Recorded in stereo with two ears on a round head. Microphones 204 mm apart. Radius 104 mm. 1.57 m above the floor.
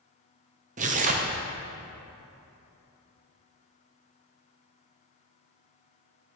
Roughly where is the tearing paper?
Right.